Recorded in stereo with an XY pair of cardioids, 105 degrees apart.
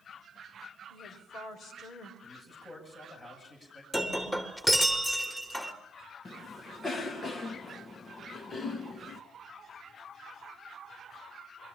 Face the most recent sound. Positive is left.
turn(degrees=40)